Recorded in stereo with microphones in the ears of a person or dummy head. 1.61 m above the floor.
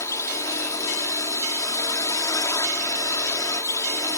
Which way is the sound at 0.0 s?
20° left (ahead or behind).